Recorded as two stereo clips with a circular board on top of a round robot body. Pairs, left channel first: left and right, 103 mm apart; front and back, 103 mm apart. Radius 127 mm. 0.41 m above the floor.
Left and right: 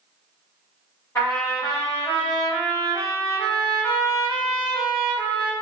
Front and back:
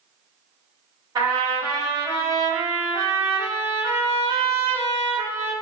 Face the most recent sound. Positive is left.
turn(degrees=145)